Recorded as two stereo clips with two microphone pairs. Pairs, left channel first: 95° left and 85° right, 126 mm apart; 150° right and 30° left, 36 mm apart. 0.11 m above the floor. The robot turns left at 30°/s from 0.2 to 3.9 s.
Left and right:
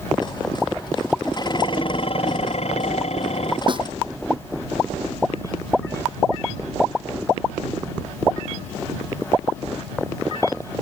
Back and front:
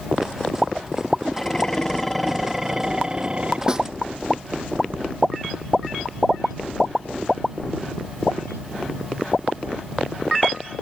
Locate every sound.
1.3 s dishes clattering: 145° left; by 3.6 s 80° left
3.7 s a snare drum: 40° right; by 3.9 s 45° right